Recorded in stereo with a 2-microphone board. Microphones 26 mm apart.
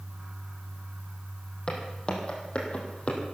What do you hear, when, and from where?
1.7 s footsteps: 35° left (ahead or behind), 3.5 m; by 3.2 s 50° left (ahead or behind), 3.5 m